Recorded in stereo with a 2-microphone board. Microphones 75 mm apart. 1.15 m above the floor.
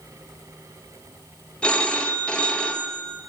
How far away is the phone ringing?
About 0.6 m.